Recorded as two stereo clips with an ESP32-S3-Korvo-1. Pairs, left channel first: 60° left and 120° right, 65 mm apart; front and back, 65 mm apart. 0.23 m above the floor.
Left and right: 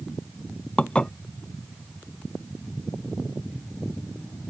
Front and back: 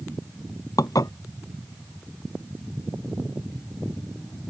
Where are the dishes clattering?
15° right.